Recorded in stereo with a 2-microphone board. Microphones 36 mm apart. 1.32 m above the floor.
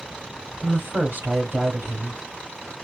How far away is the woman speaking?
About 2.5 m.